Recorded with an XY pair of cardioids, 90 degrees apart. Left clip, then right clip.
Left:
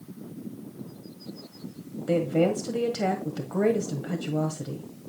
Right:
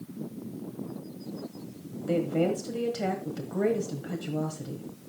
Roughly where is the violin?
I don't hear a violin.